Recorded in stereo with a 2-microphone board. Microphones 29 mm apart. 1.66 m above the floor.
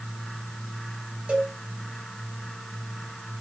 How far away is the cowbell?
About 1.1 m.